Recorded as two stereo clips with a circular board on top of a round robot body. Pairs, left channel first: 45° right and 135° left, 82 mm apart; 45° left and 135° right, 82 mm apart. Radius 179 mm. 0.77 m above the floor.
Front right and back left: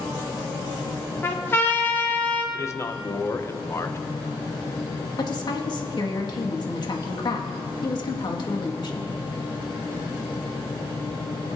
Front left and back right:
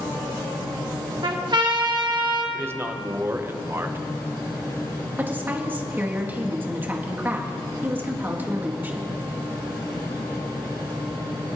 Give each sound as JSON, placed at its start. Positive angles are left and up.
{"t": 1.2, "sound": "a trumpet", "azimuth_deg": -110, "distance_m": 1.7}
{"t": 2.5, "sound": "a man speaking", "azimuth_deg": -85, "distance_m": 1.1}
{"t": 5.2, "sound": "a woman speaking", "azimuth_deg": -70, "distance_m": 2.0}